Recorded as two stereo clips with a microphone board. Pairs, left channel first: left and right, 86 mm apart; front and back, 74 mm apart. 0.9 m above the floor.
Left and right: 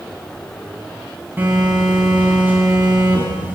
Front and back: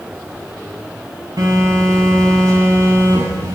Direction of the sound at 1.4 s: 155° right.